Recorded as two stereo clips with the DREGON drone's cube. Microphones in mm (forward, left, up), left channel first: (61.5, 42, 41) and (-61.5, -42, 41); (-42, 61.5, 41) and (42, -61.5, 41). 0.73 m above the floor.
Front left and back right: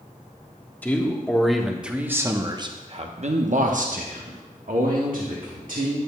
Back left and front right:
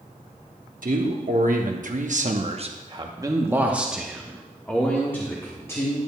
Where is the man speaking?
45° right, 1.3 m; by 6.0 s 165° right, 1.8 m.